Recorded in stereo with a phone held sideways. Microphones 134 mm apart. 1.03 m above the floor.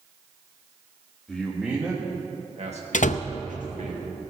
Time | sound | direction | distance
1.3 | a man speaking | 5° left (ahead or behind) | 1.5 m
2.9 | a door slam | 80° left | 0.5 m